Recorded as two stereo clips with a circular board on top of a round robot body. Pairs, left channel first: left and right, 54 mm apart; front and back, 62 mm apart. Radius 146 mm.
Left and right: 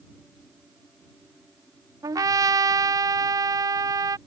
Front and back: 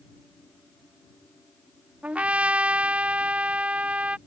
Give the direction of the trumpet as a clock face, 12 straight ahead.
4 o'clock.